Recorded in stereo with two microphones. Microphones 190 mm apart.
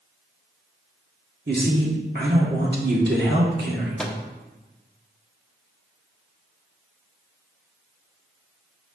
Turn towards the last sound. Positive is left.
turn(degrees=5)  # may be behind; listen again after turning